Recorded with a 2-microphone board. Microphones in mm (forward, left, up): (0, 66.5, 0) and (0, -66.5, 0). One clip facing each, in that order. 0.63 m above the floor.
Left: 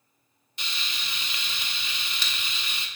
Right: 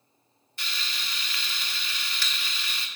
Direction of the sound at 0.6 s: 20° left (ahead or behind).